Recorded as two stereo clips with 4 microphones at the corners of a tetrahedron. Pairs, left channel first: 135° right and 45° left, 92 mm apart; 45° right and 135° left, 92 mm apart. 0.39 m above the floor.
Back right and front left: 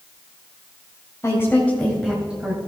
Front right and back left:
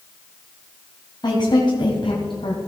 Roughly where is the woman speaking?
Right.